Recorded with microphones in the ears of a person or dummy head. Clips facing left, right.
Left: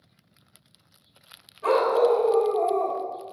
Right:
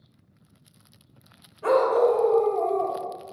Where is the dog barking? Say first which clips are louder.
Right 1 dB; 20° right (ahead or behind), 1.2 m; by 3.0 s 15° left (ahead or behind), 1.5 m.